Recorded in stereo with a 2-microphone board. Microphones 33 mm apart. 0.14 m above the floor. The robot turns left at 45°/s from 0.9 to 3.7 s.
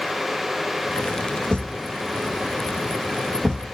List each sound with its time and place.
1.5 s a thud: 75° left (ahead or behind), 1.7 m; by 3.7 s 25° right (ahead or behind), 1.7 m